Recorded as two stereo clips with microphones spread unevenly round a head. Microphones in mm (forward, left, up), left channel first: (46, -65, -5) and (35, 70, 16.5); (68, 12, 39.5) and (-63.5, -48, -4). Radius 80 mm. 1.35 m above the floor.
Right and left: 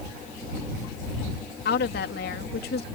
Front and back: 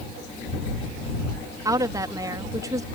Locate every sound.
1.6 s a woman speaking: 85° right